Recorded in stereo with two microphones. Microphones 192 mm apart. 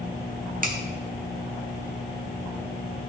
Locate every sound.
0.6 s a finger snap: 45° right (ahead or behind), 1.3 m